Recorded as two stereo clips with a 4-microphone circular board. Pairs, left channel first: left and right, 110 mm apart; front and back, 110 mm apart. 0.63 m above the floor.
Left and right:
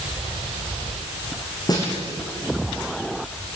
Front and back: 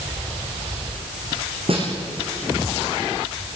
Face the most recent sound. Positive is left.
turn(degrees=145)